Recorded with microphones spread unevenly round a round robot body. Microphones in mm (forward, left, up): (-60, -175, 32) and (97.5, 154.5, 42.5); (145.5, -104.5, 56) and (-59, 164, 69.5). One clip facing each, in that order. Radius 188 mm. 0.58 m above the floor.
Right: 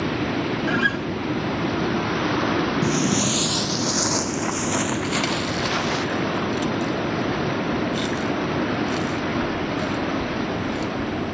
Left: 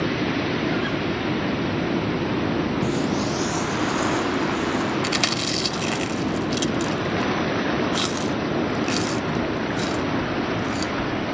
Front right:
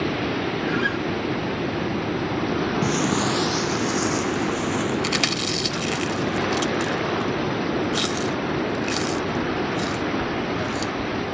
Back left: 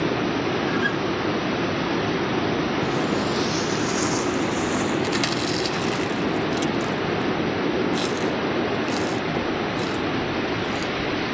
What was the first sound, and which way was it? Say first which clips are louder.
A guitar: even, even; 150° right.